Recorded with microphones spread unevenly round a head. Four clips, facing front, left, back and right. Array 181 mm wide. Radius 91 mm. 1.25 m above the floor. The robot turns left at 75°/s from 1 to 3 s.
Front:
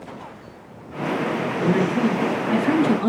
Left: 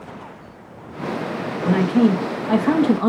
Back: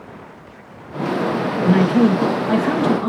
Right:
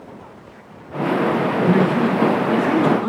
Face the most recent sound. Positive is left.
turn(degrees=80)